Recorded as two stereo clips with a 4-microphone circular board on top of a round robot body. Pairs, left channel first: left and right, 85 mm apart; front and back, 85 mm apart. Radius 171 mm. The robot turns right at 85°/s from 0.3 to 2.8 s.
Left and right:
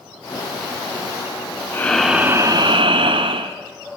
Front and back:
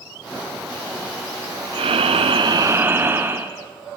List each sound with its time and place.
1.7 s breathing: 155° left, 1.2 m; by 3.5 s 115° right, 1.2 m